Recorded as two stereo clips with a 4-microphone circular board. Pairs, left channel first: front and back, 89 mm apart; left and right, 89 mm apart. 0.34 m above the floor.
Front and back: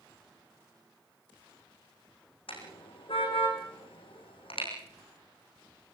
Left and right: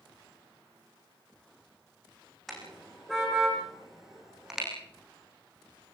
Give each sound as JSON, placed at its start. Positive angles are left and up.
{"t": 2.5, "sound": "a car horn", "azimuth_deg": 0, "distance_m": 7.5}